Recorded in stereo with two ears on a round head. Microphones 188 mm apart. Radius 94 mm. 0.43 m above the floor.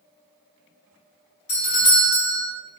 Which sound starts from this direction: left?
A doorbell, at 1.5 s.